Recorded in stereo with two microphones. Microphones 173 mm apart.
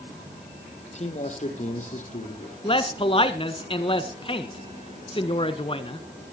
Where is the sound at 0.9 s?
40° left (ahead or behind), 4.5 m; by 2.5 s 50° left (ahead or behind), 5.5 m.